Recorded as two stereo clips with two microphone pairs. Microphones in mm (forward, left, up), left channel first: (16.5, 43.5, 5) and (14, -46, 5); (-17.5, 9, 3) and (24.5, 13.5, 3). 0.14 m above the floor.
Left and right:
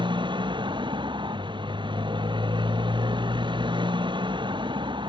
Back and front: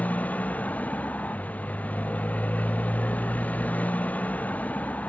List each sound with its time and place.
0.0 s a motorcycle: 120° right